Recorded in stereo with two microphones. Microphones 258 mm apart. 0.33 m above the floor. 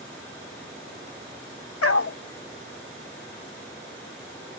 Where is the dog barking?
65° left (ahead or behind).